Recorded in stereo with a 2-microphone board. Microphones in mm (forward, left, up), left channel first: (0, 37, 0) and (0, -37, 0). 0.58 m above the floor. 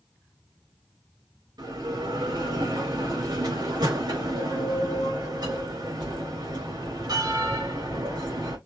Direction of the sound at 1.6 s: 70° right (ahead or behind).